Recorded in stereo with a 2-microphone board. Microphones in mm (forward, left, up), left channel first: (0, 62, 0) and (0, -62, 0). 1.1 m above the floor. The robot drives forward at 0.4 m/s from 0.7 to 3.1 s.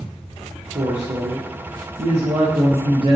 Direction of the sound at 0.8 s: 55° right (ahead or behind).